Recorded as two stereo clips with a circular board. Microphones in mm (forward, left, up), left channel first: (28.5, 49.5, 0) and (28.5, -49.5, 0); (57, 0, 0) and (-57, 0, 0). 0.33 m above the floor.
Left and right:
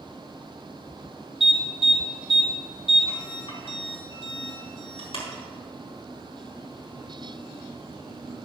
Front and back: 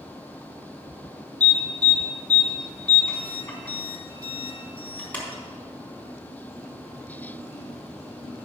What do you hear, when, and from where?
1.4 s an alarm: 75° left, 4 m